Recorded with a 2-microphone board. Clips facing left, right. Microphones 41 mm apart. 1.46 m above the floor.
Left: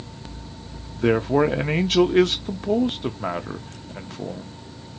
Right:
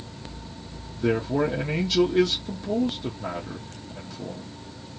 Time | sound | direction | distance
0.9 | a man speaking | 55° left (ahead or behind) | 0.7 m